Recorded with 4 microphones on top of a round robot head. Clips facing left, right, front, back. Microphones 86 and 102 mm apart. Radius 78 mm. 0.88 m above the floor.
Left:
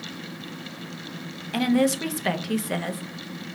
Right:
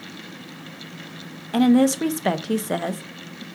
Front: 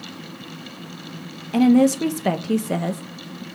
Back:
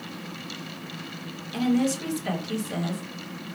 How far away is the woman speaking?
About 0.9 m.